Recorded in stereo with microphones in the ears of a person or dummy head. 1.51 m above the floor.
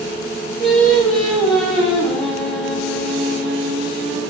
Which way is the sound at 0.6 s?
Centre (ahead or behind).